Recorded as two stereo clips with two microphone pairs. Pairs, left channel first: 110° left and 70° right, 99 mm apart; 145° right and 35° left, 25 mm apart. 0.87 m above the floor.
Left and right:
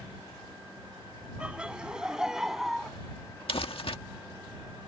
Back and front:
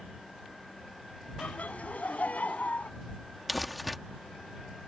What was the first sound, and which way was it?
Laughter, 150° right.